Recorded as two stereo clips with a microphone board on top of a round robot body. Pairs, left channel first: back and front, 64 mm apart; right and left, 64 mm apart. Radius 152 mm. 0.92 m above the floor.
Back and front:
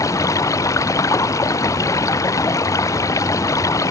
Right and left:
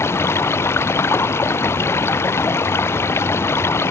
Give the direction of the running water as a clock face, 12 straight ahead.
5 o'clock.